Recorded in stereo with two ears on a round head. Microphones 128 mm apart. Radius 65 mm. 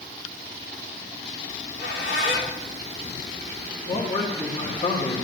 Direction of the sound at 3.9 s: 40° left (ahead or behind).